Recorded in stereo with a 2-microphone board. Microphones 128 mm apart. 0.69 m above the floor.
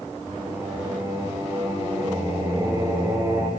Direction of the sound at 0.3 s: 20° right (ahead or behind).